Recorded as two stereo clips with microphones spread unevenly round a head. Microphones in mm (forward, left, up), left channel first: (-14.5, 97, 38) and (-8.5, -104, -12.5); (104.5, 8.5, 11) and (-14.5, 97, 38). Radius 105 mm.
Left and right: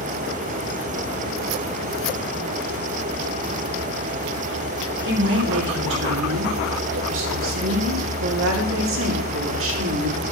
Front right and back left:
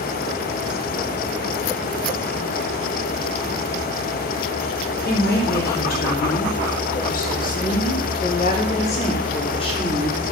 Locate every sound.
5.0 s a woman speaking: 60° right, 4 m; by 10.2 s 105° right, 3 m